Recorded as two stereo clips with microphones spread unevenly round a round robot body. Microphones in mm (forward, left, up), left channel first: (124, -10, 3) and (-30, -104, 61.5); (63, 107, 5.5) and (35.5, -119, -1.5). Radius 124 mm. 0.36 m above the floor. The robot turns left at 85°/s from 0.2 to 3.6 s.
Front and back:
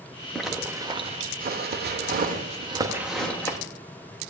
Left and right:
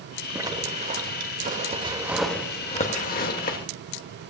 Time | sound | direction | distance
0.3 | a zipper | 25° right | 1.4 m